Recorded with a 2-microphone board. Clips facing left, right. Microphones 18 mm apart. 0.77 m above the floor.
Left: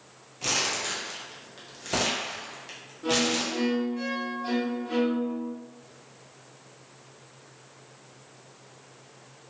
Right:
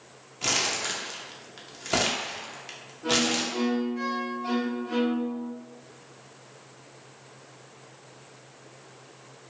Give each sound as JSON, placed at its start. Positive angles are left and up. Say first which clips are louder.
{"t": 0.4, "sound": "crumpling", "louder": "right 1 dB", "side_deg": -20, "distance_m": 0.7}
{"t": 3.0, "sound": "a violin", "louder": "even", "side_deg": 5, "distance_m": 1.1}